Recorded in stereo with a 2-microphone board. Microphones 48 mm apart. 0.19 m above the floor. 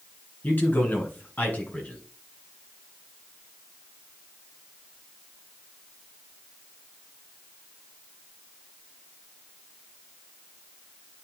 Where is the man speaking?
35° left (ahead or behind), 2.5 m; by 2.0 s 30° left (ahead or behind), 1.7 m.